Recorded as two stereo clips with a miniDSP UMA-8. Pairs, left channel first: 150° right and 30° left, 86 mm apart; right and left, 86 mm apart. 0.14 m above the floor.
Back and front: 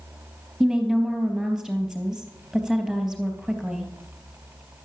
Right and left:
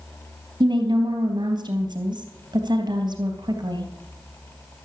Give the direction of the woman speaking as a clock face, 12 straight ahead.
8 o'clock.